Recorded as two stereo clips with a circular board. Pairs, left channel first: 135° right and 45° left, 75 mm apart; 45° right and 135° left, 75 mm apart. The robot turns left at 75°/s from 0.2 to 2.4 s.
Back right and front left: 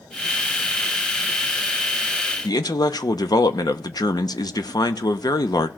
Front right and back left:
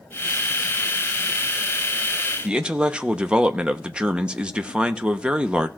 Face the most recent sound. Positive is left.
turn(degrees=-150)